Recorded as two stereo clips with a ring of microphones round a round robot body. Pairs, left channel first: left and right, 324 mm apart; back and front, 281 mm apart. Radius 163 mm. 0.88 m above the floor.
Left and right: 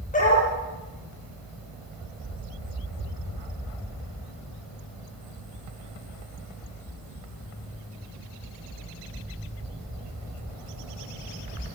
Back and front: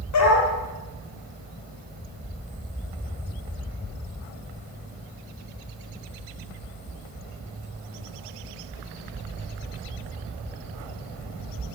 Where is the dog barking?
155° left, 8.5 m.